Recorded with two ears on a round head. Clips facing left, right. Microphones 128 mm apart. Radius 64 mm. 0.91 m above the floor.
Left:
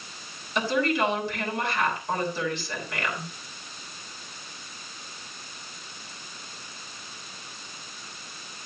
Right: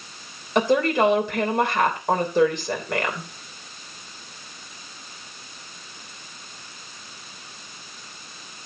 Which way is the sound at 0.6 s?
45° right (ahead or behind).